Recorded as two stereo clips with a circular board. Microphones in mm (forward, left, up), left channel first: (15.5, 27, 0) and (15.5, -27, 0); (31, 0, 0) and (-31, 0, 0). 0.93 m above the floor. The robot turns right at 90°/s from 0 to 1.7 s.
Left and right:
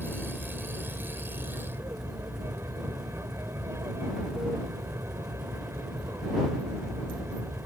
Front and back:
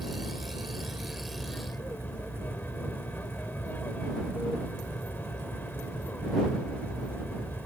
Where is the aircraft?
150° left; by 7.7 s 60° right.